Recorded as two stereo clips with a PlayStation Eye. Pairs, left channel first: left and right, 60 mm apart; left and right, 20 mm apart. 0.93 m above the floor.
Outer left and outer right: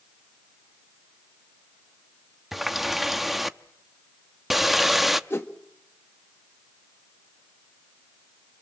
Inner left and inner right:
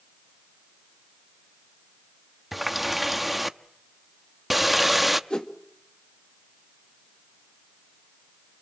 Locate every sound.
2.5 s a running tap: 5° right (ahead or behind), 0.7 m
5.3 s a whoosh: 40° left (ahead or behind), 1.5 m